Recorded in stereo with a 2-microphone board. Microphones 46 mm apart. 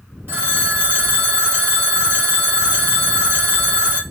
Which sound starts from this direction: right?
A phone ringing, at 0.3 s.